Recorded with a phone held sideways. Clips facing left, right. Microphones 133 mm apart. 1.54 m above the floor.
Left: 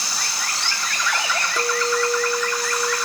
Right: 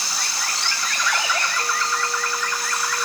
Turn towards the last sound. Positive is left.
turn(degrees=70)  # may be behind; listen again after turning